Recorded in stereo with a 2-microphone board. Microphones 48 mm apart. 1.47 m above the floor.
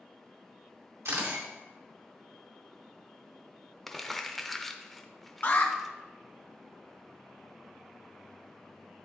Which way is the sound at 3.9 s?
5° left (ahead or behind).